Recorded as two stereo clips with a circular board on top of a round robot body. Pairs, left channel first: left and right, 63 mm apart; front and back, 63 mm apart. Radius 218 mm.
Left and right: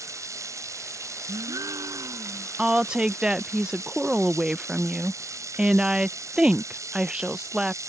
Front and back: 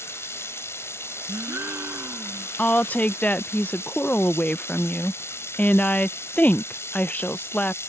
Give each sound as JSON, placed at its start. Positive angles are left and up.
{"t": 0.0, "sound": "running water", "azimuth_deg": -50}
{"t": 1.3, "sound": "a gasp", "azimuth_deg": -120}
{"t": 2.6, "sound": "a woman speaking", "azimuth_deg": -30}